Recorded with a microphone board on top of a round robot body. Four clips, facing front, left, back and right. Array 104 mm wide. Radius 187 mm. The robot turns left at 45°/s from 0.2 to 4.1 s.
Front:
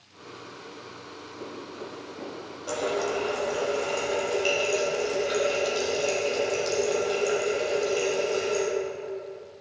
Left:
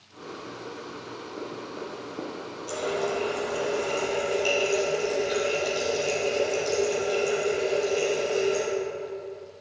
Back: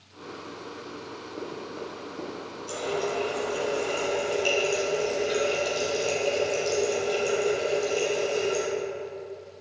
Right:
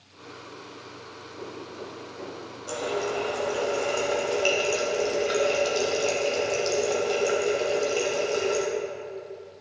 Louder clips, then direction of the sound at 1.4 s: Left 1 dB, back 2 dB; 145° left.